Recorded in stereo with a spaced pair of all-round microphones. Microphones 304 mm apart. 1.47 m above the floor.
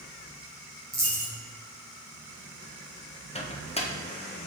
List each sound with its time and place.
0.9 s a dropped coin: 60° right (ahead or behind), 3 m
3.4 s a microwave: 20° left (ahead or behind), 0.7 m